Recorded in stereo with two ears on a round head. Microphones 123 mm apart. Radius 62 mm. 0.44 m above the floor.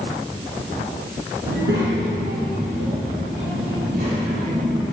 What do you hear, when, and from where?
1.5 s a child speaking: 80° right, 5 m; by 4.8 s 70° right (ahead or behind), 8 m